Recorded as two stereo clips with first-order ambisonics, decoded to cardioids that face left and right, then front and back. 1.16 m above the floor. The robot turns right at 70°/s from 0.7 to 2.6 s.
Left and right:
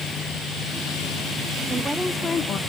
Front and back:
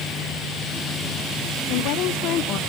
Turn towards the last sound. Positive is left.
turn(degrees=40)